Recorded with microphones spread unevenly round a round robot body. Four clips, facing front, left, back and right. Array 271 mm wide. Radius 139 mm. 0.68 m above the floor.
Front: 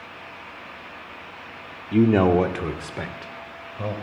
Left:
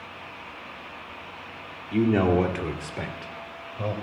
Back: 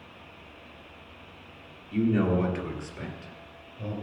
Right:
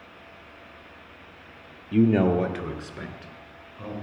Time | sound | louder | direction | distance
1.9 | a man speaking | right 1 dB, front 8 dB | 10° right | 1.4 m